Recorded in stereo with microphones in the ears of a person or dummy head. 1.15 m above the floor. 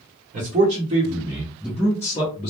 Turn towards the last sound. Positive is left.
turn(degrees=35)  # may be behind; listen again after turning